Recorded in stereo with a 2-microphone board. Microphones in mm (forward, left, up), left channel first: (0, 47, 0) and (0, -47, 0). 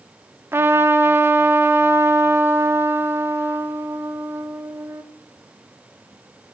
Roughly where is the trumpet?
Right.